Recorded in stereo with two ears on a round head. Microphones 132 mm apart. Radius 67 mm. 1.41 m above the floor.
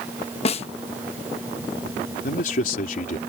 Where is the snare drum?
45° left (ahead or behind).